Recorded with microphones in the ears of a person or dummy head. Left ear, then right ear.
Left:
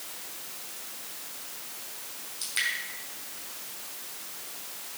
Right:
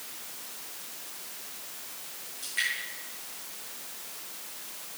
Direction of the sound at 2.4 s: 80° left.